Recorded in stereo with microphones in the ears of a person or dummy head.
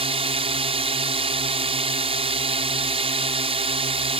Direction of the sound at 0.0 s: 30° right (ahead or behind).